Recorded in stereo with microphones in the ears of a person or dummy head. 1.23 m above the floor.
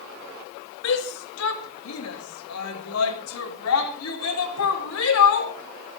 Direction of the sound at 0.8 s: 70° left (ahead or behind).